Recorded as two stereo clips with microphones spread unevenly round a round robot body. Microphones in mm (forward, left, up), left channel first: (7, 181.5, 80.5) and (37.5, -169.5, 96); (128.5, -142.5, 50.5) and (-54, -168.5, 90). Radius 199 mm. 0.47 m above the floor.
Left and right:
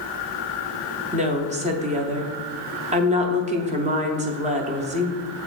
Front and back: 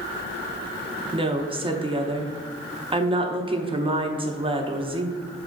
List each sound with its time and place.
1.1 s a woman speaking: 125° right, 0.7 m